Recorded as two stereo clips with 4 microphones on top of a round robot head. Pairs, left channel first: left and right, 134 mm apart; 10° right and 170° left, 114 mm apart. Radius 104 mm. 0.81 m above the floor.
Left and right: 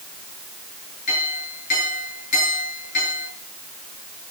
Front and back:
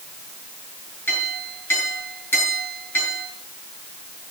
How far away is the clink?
About 8.5 m.